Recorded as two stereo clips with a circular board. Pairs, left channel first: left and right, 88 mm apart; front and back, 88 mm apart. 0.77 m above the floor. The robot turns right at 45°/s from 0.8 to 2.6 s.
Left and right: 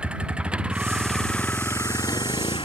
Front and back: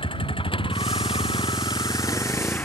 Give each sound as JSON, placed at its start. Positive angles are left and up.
{"t": 0.0, "sound": "a vehicle", "azimuth_deg": -10}